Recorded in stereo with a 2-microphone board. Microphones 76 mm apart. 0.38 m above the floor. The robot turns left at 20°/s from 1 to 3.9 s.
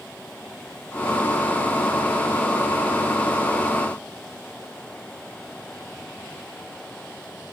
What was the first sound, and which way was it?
Only background noise.